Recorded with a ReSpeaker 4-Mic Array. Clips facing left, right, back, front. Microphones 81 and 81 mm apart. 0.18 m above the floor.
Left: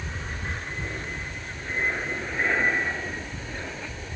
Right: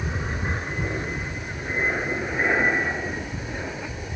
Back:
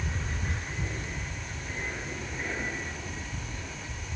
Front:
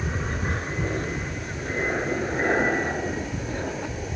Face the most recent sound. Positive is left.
turn(degrees=-15)